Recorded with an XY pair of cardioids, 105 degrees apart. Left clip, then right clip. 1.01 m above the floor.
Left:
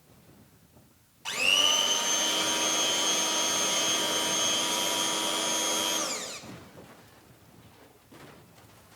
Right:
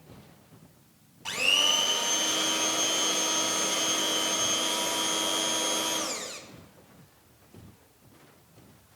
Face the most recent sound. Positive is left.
turn(degrees=5)